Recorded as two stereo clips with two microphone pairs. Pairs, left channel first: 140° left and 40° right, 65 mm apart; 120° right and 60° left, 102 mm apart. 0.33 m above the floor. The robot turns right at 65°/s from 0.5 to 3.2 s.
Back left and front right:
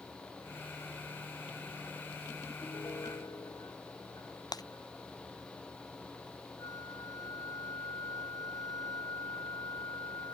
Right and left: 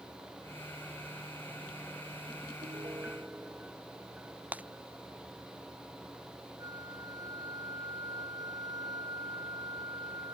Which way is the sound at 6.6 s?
110° left.